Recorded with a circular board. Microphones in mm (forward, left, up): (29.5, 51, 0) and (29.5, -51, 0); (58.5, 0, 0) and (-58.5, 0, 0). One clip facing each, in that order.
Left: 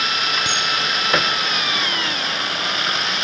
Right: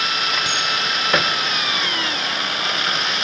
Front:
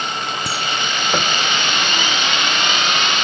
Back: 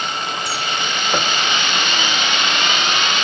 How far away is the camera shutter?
About 3.5 m.